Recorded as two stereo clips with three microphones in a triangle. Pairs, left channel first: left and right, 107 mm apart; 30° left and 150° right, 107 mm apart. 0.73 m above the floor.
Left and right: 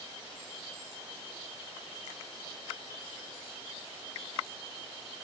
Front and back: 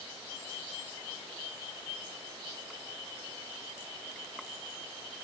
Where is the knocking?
I don't hear knocking.